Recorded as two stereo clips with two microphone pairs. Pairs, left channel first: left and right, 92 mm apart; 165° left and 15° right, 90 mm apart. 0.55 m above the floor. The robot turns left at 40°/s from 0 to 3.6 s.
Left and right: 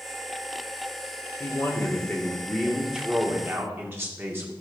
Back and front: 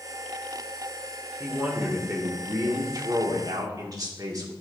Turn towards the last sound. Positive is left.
turn(degrees=-35)